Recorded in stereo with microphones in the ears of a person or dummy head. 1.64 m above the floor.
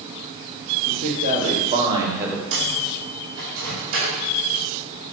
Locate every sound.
0.9 s a man speaking: 50° right (ahead or behind), 1.9 m; by 2.4 s 5° right (ahead or behind), 1.1 m
2.5 s a microwave: 70° right (ahead or behind), 2.5 m